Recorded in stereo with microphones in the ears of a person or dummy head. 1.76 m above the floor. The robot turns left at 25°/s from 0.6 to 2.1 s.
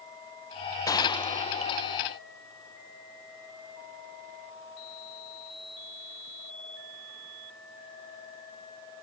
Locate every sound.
0.9 s a gunshot: 160° left; by 2.2 s 130° left